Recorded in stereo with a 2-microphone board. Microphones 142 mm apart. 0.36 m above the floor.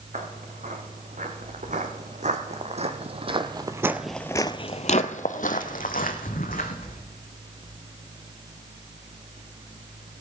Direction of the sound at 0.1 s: 65° right (ahead or behind).